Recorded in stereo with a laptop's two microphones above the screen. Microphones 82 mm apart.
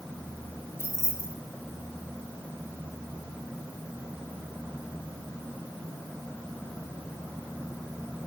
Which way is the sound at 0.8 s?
35° left (ahead or behind).